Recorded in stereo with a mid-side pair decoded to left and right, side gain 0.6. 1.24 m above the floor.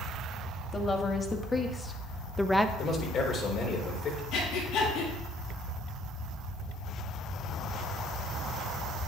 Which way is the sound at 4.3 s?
65° left.